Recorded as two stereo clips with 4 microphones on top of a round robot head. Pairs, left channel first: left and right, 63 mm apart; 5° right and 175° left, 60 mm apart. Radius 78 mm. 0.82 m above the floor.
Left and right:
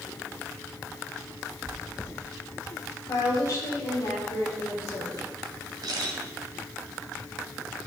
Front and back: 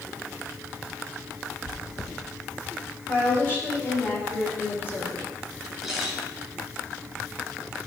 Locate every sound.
1.6 s chewing: 10° left, 1.8 m
3.1 s a woman speaking: 50° left, 4 m
5.8 s a camera shutter: 100° right, 2 m